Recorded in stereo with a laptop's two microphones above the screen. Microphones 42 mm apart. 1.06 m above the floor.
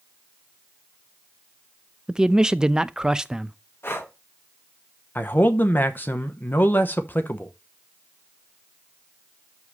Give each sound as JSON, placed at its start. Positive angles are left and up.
{"t": 2.1, "sound": "a man speaking", "side_deg": -15, "distance_m": 0.5}
{"t": 3.8, "sound": "breathing", "side_deg": 60, "distance_m": 0.9}
{"t": 5.2, "sound": "a man speaking", "side_deg": 45, "distance_m": 0.8}